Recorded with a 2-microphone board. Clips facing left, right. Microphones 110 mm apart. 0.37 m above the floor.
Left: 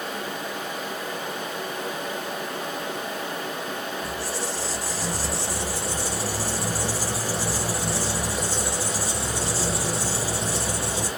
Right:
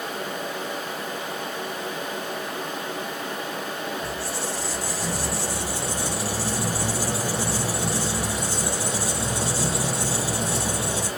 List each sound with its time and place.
4.0 s a squeak: 80° right, 2.5 m